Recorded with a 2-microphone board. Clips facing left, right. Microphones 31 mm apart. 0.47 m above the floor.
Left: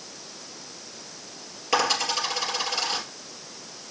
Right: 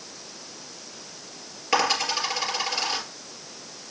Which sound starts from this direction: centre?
A dropped coin, at 1.7 s.